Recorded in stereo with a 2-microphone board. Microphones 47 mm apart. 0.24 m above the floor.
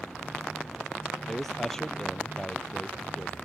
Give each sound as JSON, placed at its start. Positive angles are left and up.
{"t": 1.3, "sound": "a man speaking", "side_deg": 10}